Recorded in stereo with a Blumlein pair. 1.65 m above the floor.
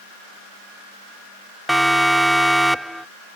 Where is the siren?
5° right.